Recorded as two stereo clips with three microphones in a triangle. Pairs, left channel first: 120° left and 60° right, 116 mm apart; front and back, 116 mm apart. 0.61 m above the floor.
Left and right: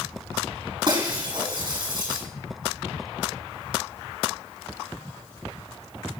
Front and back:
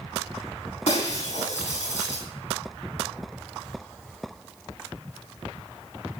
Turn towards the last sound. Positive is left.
turn(degrees=-10)